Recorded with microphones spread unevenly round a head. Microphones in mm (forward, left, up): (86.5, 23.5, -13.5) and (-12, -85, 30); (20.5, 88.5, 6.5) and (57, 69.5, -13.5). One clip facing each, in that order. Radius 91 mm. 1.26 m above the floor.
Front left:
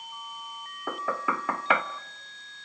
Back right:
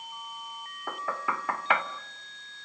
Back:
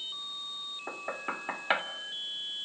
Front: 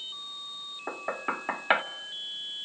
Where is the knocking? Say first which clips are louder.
Front left 3 dB, front 4 dB; 55° left, 0.9 m.